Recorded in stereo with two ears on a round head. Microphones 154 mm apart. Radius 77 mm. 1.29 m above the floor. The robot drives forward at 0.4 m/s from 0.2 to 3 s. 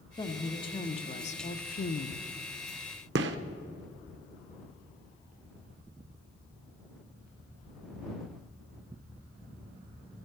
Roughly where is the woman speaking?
Left.